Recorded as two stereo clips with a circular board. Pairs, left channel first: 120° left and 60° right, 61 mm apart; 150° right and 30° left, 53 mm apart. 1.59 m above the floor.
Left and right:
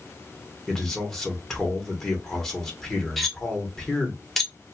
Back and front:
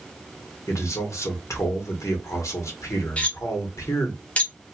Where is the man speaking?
155° right, 1.6 m.